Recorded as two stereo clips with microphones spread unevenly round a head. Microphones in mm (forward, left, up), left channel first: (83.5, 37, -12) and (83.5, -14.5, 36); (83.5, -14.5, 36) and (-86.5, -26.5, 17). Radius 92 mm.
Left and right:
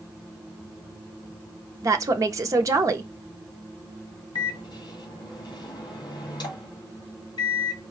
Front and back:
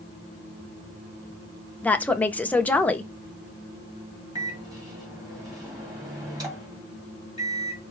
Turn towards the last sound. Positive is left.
turn(degrees=110)